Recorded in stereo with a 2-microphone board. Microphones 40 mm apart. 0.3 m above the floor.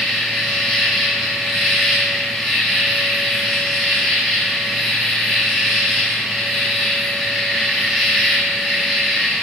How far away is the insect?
About 0.8 m.